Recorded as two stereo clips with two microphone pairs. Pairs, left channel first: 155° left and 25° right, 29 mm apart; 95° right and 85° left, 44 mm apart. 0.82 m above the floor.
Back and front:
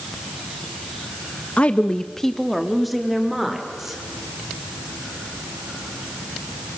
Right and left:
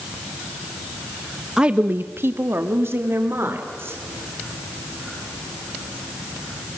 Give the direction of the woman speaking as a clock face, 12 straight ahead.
7 o'clock.